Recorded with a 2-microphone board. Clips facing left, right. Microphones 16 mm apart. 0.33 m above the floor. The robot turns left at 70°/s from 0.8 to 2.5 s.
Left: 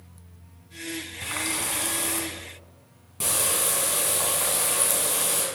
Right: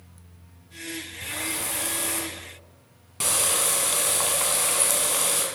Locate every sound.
1.2 s a running tap: 60° left, 1.8 m; by 5.5 s 30° right, 1.8 m